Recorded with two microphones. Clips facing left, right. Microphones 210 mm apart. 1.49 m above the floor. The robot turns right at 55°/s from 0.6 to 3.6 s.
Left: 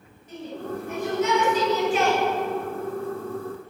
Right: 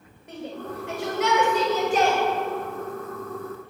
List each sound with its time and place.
0.3 s a shout: 65° right (ahead or behind), 9.5 m; by 2.2 s 25° right (ahead or behind), 9.5 m